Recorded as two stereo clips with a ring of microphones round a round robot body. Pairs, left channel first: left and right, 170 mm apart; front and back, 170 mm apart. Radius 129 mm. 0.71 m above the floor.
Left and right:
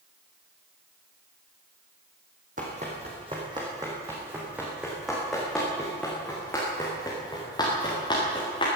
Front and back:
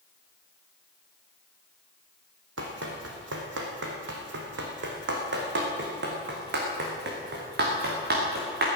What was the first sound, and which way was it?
Running footsteps, 150° right.